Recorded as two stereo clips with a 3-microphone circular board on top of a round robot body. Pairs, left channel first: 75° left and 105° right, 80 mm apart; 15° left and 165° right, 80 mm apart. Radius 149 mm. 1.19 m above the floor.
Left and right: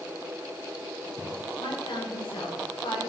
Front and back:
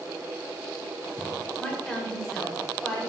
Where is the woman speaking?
100° left, 6.5 m.